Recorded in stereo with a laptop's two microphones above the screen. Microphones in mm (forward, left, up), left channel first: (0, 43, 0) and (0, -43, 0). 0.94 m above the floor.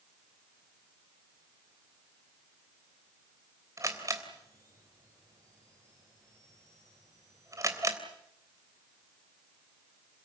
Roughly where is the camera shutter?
Right.